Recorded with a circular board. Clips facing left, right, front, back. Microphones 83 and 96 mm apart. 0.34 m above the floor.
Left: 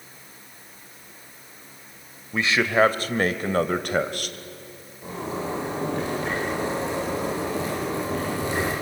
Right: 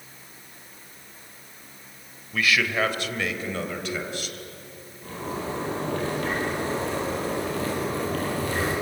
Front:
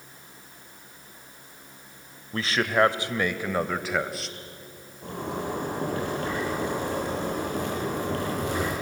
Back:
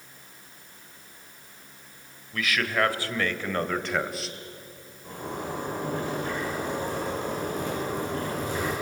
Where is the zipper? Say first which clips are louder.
Left 2 dB, front 3 dB; 20° left, 9.5 m.